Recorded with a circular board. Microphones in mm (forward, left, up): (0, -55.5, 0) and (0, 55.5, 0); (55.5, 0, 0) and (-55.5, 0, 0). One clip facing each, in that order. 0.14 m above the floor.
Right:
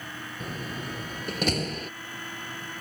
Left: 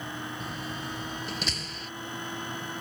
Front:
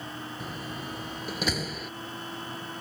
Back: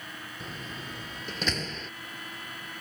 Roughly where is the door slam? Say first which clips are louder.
Right 1 dB, front 1 dB; right.